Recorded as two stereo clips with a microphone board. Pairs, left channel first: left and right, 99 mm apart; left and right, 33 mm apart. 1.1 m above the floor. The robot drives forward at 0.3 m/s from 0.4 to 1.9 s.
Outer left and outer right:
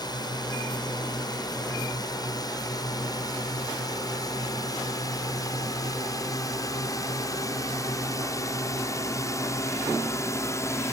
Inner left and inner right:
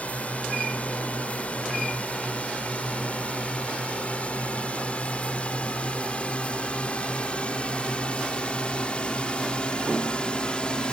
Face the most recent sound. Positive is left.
turn(degrees=30)  # may be behind; listen again after turning